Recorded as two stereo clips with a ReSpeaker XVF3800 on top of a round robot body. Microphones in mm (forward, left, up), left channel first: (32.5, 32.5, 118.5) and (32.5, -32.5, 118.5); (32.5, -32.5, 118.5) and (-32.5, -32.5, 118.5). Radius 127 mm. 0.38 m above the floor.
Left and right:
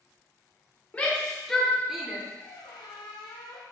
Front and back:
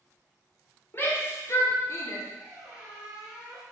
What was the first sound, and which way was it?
A shout, 30° left.